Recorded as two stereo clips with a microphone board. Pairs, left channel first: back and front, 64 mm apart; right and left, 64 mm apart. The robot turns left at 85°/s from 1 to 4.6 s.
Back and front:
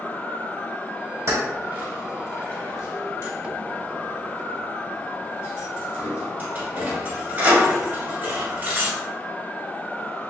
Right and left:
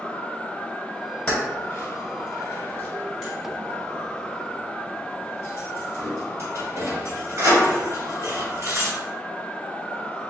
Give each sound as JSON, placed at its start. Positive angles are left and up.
{"t": 1.3, "sound": "keys jangling", "azimuth_deg": -20, "distance_m": 1.4}